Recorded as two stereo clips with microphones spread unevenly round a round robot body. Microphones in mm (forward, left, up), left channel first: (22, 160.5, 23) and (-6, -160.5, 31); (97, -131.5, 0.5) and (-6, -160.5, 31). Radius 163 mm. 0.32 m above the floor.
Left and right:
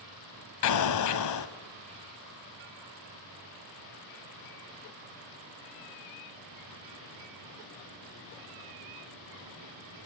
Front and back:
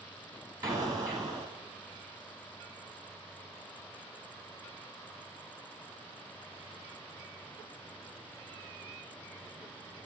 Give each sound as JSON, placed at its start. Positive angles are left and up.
{"t": 0.6, "sound": "an explosion", "azimuth_deg": 115, "distance_m": 1.2}